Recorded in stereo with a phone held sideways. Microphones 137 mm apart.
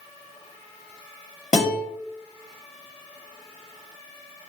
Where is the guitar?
70° left (ahead or behind), 1.3 m.